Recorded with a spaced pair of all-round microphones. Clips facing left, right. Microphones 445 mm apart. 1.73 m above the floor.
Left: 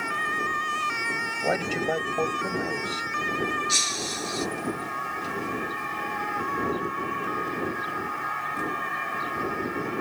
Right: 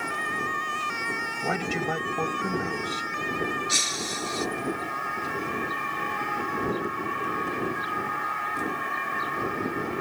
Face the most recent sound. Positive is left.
turn(degrees=-70)  # may be behind; listen again after turning